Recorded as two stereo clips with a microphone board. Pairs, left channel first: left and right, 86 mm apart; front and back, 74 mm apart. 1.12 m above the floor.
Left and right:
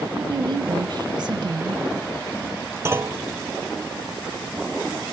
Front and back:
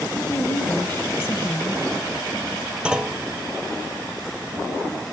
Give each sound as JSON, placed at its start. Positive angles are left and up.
{"t": 0.2, "sound": "a woman speaking", "azimuth_deg": -60, "distance_m": 1.0}
{"t": 2.9, "sound": "a clunk", "azimuth_deg": -115, "distance_m": 0.6}